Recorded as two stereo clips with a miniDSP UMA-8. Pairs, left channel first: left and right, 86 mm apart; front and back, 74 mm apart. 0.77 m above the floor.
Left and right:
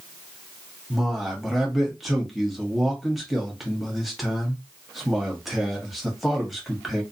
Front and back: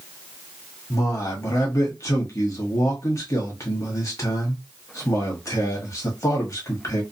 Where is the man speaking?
Straight ahead, 1.2 m.